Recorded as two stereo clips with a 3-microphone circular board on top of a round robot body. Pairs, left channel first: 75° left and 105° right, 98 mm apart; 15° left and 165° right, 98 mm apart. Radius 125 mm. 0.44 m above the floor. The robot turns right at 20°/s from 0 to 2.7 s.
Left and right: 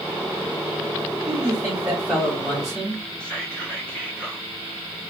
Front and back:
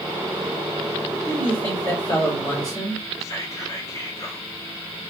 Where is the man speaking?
45° right, 1.4 m; by 3.0 s 15° right, 1.4 m.